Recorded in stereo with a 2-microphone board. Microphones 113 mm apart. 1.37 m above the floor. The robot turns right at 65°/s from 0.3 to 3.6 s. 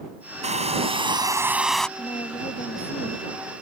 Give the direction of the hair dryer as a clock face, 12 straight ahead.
3 o'clock.